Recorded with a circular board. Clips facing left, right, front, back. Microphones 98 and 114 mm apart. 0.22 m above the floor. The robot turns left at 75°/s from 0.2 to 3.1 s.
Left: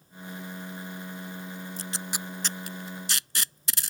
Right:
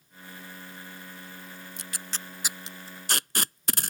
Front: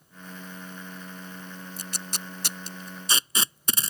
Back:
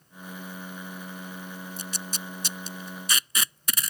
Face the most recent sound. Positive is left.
turn(degrees=-60)